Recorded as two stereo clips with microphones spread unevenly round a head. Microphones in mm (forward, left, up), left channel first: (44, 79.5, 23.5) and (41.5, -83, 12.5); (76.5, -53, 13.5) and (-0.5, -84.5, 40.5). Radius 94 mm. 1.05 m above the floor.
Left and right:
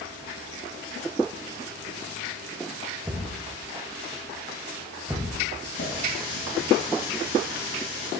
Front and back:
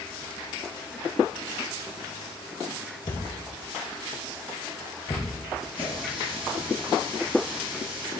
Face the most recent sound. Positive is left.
turn(degrees=110)